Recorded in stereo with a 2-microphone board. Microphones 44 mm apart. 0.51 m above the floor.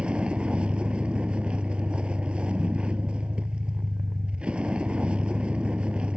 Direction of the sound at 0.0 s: 25° right (ahead or behind).